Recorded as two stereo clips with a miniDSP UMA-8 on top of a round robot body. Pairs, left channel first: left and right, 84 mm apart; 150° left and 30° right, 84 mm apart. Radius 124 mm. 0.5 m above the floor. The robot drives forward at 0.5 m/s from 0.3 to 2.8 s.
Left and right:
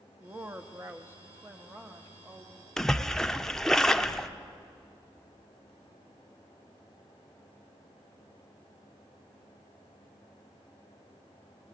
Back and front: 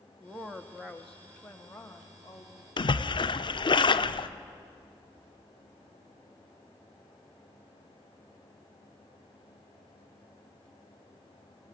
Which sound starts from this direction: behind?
A splash, at 2.8 s.